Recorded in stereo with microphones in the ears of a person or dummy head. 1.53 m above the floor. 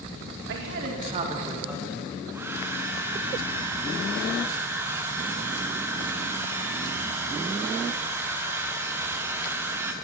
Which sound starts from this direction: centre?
A hair dryer, at 2.3 s.